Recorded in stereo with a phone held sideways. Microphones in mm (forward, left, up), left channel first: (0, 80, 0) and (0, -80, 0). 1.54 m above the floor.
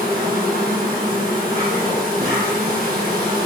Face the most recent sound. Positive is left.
turn(degrees=-60)  # may be behind; listen again after turning